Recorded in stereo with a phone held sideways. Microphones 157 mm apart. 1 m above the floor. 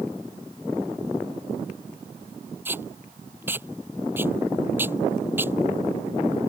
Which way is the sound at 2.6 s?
15° right (ahead or behind).